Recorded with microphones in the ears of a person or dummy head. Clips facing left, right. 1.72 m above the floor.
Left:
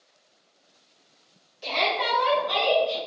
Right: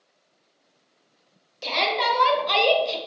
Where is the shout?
75° right (ahead or behind), 1.2 m; by 3.0 s 60° right (ahead or behind), 0.5 m.